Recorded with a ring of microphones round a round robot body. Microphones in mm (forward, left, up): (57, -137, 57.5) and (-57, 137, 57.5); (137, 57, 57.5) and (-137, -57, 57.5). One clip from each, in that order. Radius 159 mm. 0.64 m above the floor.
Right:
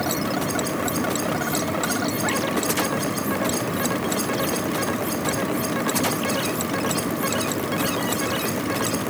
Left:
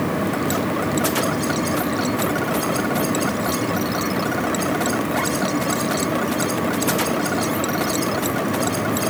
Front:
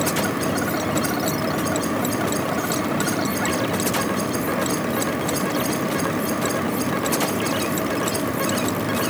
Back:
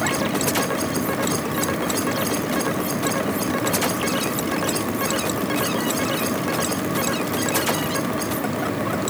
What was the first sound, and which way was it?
Only background noise.